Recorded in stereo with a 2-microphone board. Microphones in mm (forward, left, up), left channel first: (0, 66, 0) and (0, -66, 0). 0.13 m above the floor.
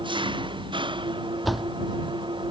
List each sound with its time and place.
0.0 s an engine running: 35° right (ahead or behind)
1.4 s a door slam: centre (ahead or behind)